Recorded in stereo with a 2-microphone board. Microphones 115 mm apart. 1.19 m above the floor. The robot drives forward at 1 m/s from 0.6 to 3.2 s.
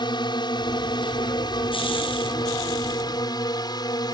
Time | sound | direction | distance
0.0 | a drone | 40° left (ahead or behind) | ?